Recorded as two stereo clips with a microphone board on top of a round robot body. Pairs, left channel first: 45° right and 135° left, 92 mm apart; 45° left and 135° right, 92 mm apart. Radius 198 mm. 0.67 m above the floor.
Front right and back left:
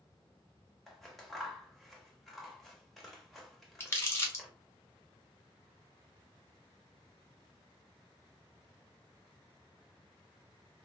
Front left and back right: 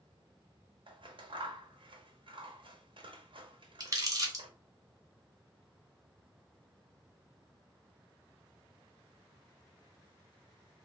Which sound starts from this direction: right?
Crumpling, at 3.8 s.